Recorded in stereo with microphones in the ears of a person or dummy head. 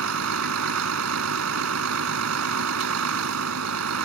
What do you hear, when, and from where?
0.0 s a vehicle: 75° right (ahead or behind)